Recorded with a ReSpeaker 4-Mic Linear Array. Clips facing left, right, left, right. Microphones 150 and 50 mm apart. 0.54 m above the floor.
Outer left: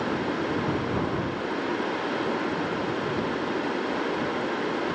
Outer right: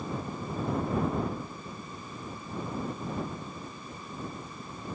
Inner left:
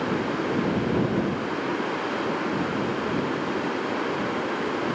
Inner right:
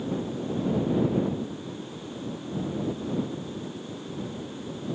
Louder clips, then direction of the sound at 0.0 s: Outer left 9 dB, inner left 6 dB; 80° left.